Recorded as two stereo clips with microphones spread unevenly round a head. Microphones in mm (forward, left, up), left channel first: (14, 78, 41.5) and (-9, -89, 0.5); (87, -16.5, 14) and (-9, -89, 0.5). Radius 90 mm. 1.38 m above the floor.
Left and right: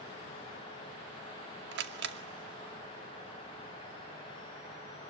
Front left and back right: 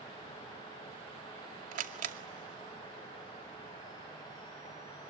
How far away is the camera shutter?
About 2 m.